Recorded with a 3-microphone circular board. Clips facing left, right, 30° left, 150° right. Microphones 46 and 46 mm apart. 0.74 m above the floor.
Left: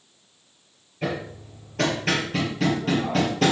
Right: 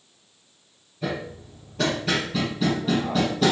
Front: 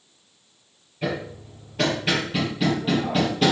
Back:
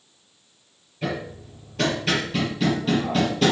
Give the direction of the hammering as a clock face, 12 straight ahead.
8 o'clock.